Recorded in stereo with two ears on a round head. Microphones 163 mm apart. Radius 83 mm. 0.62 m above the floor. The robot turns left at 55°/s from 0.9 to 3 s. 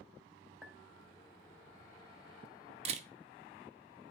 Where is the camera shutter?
35° right (ahead or behind), 0.8 m; by 3.1 s 40° right (ahead or behind), 0.8 m.